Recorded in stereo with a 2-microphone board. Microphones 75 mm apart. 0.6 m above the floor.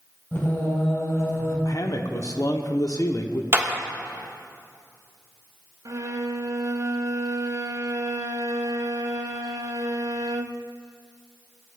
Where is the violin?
55° right (ahead or behind), 0.7 m.